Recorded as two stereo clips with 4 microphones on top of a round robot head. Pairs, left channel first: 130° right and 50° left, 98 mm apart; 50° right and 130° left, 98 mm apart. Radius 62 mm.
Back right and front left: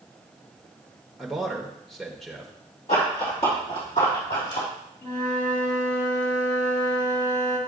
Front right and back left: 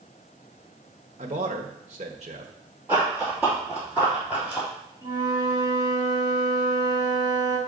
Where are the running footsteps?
165° right, 2.5 m; by 4.7 s 155° right, 4 m.